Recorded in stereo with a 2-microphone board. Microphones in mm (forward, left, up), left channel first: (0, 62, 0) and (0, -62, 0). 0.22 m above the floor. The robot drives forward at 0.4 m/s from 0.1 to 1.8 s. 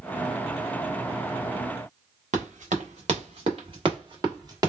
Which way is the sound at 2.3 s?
70° right (ahead or behind).